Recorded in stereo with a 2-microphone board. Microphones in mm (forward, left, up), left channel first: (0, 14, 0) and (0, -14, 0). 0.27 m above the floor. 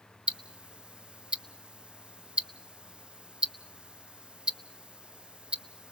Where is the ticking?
40° right (ahead or behind), 0.8 m.